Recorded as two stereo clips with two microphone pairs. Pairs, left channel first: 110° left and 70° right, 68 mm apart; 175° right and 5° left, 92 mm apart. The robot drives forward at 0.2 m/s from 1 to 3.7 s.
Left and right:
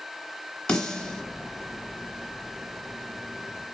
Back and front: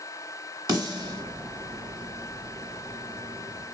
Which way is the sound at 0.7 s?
35° left.